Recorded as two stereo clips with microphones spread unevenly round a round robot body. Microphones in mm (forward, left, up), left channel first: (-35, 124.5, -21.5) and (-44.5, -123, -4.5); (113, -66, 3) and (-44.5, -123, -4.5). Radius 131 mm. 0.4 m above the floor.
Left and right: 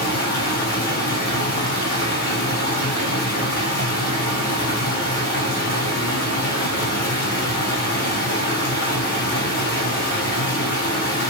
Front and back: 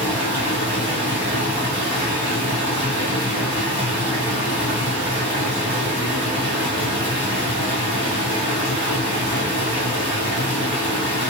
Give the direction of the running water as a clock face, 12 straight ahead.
8 o'clock.